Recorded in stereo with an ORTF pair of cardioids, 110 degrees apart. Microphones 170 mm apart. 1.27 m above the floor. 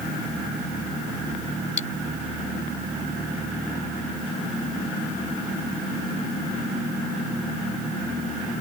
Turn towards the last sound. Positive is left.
turn(degrees=45)